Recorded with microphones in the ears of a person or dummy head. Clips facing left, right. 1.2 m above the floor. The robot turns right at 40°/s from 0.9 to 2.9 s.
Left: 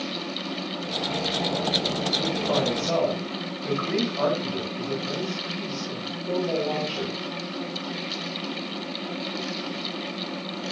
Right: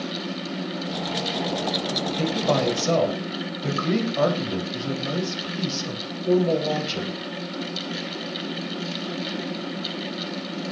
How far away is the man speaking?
About 5.5 m.